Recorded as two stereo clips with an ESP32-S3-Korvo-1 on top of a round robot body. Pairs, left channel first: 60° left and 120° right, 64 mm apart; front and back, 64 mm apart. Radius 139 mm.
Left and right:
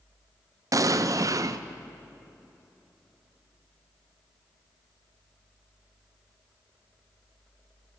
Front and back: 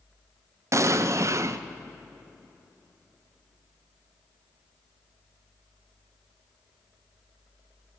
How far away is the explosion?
About 0.5 m.